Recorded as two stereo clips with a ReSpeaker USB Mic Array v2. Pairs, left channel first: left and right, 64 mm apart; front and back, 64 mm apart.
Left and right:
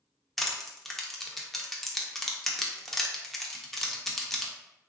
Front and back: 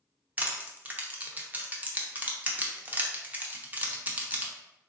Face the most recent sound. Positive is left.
turn(degrees=165)